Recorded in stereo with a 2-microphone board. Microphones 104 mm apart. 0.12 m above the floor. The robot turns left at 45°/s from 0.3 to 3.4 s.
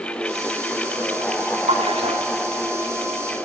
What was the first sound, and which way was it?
A splash, 80° right.